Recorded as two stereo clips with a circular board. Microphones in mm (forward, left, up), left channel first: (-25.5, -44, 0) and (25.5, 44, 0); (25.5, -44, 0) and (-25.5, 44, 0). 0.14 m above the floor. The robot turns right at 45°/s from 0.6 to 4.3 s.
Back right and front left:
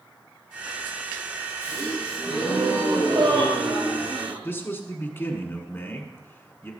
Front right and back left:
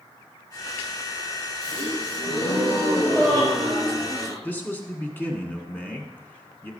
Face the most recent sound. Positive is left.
turn(degrees=-95)